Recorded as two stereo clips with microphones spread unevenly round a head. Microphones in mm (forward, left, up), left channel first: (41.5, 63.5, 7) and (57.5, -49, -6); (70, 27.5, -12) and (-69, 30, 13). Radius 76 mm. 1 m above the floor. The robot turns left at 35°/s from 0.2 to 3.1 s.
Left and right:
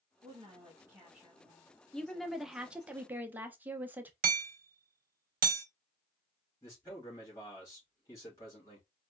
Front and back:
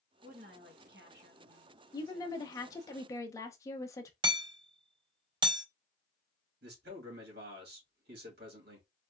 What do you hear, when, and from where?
0.2 s a woman speaking: 130° right, 1.8 m; by 2.9 s 135° left, 1.8 m
1.9 s a woman speaking: 10° left, 0.8 m; by 4.1 s 30° right, 0.8 m
4.2 s hammering: 120° right, 0.8 m
6.6 s a man speaking: 170° left, 2.5 m